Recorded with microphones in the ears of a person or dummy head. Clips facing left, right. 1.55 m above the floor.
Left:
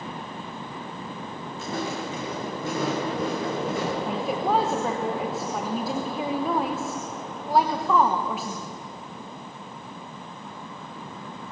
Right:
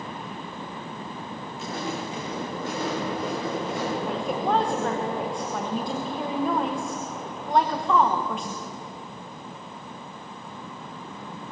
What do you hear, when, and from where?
1.6 s footsteps: 70° left (ahead or behind), 8.5 m; by 4.0 s 75° left (ahead or behind), 9.5 m
4.1 s a woman speaking: centre (ahead or behind), 1.2 m